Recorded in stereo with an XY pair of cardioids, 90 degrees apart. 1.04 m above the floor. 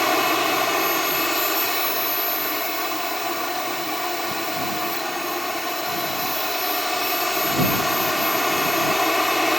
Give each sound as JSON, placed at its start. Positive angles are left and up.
{"t": 0.0, "sound": "a machine running", "azimuth_deg": 10}